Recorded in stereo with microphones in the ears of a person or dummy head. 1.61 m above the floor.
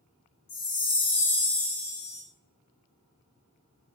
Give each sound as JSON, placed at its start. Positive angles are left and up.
{"t": 0.5, "sound": "a chime", "side_deg": 30, "distance_m": 0.9}